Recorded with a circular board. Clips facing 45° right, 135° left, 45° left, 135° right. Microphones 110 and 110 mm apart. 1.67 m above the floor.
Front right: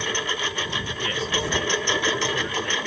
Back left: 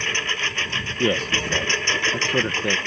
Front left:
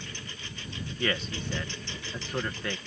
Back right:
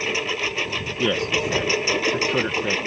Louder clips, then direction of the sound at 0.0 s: Front right 1 dB, back right 18 dB; 125° right.